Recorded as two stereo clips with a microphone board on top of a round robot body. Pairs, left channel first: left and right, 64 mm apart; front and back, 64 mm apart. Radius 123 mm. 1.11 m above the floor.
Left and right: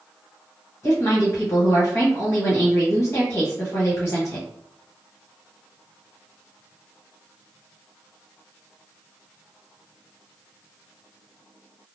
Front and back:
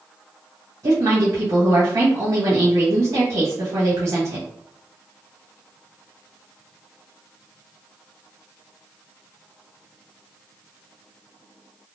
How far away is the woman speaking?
About 1.1 m.